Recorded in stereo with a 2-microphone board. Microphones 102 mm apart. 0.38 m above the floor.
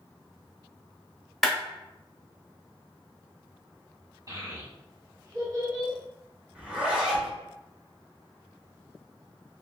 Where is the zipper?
15° right (ahead or behind), 0.9 m.